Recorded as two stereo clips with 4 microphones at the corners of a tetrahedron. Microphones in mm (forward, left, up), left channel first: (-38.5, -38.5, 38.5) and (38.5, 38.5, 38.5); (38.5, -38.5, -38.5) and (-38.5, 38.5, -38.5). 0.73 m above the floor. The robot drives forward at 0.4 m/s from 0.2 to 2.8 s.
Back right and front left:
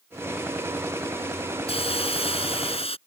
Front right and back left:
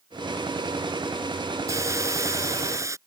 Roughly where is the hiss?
Behind.